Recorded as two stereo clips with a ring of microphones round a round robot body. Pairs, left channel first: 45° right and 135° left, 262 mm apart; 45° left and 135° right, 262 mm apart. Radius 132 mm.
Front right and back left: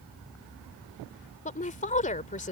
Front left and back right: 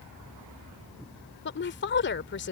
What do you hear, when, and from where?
1.4 s a woman speaking: 10° left